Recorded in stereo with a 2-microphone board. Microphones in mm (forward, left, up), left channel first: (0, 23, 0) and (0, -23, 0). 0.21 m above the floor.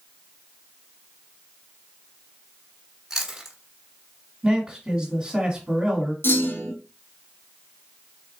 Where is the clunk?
55° left (ahead or behind), 1.7 m.